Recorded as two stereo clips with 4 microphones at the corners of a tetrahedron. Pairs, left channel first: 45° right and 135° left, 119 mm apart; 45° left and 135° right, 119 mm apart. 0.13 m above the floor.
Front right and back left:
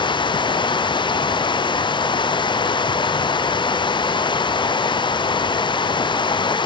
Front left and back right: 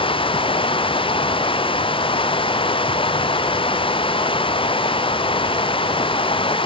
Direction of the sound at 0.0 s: 5° left.